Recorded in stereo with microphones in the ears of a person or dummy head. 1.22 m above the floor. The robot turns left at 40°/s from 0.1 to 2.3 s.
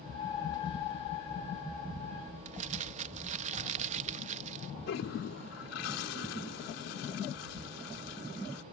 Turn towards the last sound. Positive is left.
turn(degrees=75)  # may be behind; listen again after turning